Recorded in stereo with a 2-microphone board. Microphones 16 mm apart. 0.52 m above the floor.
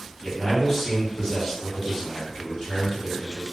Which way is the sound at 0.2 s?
30° left (ahead or behind).